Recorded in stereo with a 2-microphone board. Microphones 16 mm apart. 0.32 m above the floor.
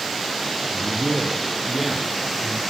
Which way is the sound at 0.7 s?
35° right (ahead or behind).